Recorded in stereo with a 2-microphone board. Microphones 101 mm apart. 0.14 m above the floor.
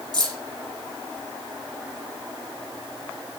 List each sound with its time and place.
0.1 s keys jangling: 40° right (ahead or behind), 4 m